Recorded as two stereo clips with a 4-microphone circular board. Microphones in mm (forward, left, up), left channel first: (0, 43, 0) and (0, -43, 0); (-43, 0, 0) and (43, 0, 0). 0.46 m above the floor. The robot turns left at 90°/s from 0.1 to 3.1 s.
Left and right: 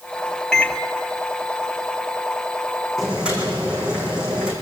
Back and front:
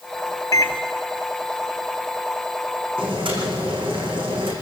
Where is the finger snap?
I don't hear a finger snap.